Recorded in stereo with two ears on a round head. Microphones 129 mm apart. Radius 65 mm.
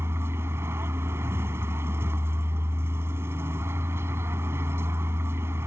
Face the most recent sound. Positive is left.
turn(degrees=-15)  # may be behind; listen again after turning